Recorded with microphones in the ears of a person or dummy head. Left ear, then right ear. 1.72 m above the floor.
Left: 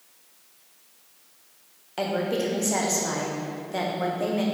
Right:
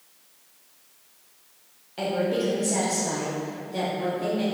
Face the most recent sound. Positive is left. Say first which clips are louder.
# right 1 dB
turn(degrees=45)  # may be behind; listen again after turning